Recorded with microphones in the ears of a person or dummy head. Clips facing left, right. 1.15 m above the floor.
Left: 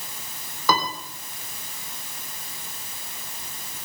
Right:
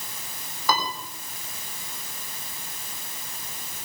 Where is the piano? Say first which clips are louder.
Left 3 dB; 65° left (ahead or behind), 3.5 m.